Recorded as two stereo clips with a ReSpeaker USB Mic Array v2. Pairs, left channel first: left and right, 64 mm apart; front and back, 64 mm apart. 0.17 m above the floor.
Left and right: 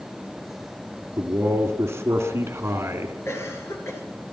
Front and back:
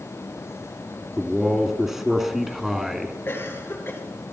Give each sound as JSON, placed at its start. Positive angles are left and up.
{"t": 1.2, "sound": "a man speaking", "azimuth_deg": -100, "distance_m": 1.9}
{"t": 3.2, "sound": "a cough", "azimuth_deg": 50, "distance_m": 3.0}